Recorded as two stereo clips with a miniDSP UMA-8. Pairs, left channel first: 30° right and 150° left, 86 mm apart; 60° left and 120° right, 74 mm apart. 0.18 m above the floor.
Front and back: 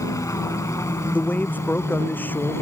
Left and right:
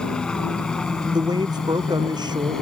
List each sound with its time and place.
0.0 s a helicopter: 15° right; by 2.6 s 20° right
1.1 s a man speaking: 100° right